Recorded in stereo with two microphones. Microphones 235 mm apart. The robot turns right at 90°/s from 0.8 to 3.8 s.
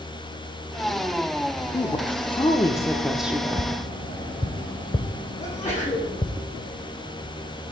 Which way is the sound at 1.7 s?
15° left (ahead or behind).